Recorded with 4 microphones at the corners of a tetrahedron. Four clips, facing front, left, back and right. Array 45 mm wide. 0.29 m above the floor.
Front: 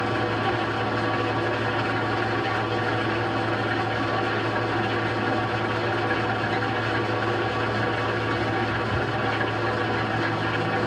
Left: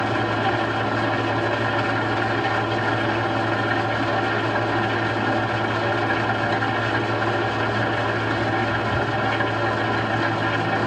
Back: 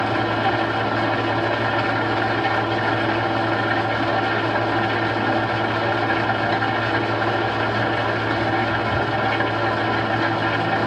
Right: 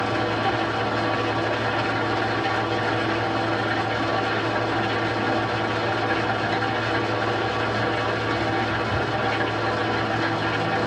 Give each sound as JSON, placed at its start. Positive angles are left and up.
{"t": 0.0, "sound": "an engine running", "azimuth_deg": 175, "distance_m": 1.2}